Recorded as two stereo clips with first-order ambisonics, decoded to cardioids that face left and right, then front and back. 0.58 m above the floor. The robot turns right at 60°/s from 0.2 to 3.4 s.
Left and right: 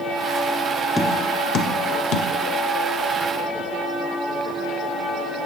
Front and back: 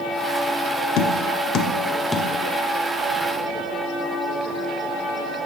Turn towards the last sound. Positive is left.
turn(degrees=150)